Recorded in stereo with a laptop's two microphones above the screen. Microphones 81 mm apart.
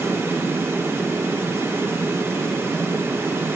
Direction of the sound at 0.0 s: 30° right (ahead or behind).